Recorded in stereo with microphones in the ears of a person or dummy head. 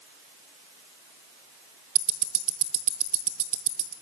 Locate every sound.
1.9 s ticking: 40° right (ahead or behind), 1.0 m